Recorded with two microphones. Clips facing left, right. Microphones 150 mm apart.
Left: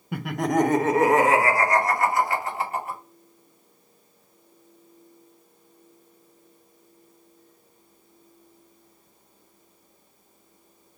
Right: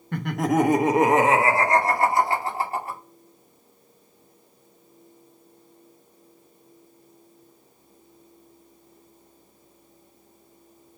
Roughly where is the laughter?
Centre.